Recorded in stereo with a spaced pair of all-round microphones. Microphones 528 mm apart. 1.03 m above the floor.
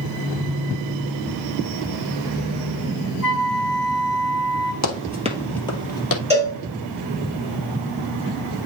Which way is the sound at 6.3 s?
10° right (ahead or behind).